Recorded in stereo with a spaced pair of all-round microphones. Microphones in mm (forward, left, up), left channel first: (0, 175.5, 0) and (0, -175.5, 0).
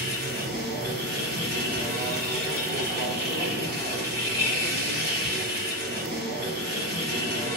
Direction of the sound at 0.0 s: 30° right (ahead or behind).